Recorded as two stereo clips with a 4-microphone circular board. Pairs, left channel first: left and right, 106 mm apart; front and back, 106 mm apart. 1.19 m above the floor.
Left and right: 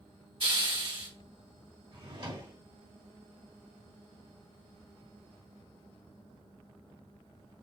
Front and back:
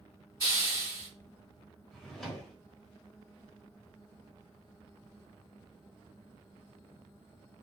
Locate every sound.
0.4 s a hiss: 110° right, 2.5 m
1.9 s a drawer: 85° right, 1.2 m